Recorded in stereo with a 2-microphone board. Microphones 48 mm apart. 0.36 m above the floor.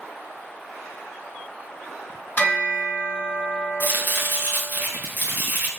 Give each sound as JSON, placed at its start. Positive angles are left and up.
{"t": 2.4, "sound": "a bell", "side_deg": 30, "distance_m": 1.9}
{"t": 3.8, "sound": "chopping", "side_deg": -40, "distance_m": 1.0}